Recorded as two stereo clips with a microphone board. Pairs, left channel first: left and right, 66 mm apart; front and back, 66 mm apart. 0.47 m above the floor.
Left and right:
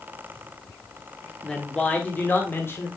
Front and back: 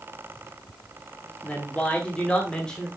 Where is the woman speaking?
25° left, 1.0 m; by 2.9 s 75° left, 1.3 m.